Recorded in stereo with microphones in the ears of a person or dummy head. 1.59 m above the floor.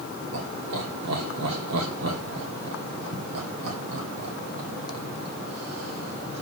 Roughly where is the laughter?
Right.